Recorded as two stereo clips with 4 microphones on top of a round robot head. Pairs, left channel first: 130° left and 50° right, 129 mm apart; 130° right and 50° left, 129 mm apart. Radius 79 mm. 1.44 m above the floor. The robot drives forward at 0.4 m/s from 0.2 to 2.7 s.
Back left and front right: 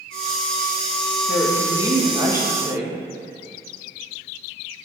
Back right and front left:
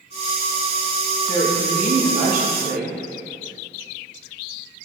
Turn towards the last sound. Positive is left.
turn(degrees=25)